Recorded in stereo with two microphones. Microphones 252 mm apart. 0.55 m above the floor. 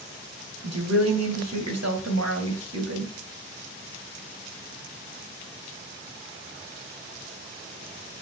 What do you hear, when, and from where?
0.6 s a woman speaking: 75° right (ahead or behind), 2.5 m